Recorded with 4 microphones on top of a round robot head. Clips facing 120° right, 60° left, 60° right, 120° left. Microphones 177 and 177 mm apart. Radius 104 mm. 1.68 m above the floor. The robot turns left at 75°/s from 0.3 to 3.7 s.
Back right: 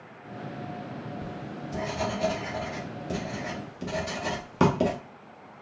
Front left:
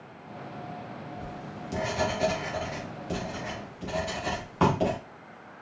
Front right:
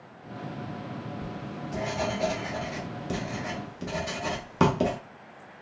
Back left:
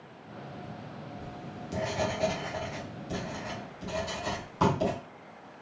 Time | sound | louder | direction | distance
1.2 | writing | back right 2 dB, front right 5 dB | 105° left | 1.1 m